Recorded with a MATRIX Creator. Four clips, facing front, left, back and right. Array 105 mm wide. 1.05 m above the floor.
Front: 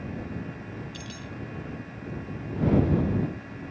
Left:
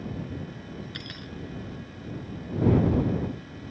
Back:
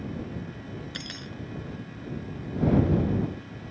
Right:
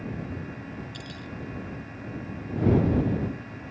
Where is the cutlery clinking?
150° left.